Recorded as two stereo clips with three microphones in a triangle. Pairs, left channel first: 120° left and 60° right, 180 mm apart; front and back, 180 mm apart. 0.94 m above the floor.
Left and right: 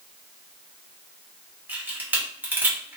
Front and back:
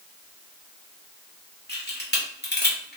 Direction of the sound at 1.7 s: 20° left.